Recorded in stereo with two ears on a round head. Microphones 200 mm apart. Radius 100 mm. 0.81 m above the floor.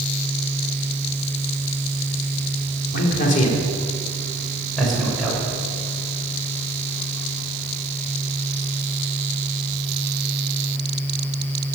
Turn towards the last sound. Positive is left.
turn(degrees=-5)  # may be behind; listen again after turning